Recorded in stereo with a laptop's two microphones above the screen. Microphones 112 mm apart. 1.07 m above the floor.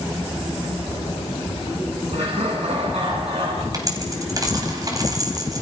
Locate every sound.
2.1 s laughter: 70° right (ahead or behind), 9.5 m; by 3.6 s 65° right (ahead or behind), 10 m
3.7 s a dropped coin: 35° right (ahead or behind), 3.5 m